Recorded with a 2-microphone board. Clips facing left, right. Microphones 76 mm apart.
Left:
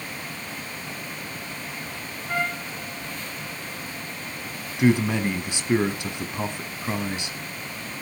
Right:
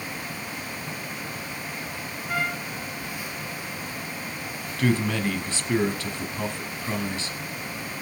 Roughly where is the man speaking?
Centre.